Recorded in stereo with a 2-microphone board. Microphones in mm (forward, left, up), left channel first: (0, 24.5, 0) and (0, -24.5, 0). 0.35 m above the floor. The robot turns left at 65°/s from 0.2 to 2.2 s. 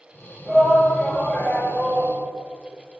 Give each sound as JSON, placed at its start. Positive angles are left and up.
{"t": 0.5, "sound": "a shout", "azimuth_deg": -160, "distance_m": 5.5}